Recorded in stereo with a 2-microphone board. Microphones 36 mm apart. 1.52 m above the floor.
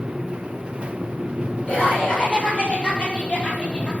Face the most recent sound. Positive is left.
turn(degrees=40)  # may be behind; listen again after turning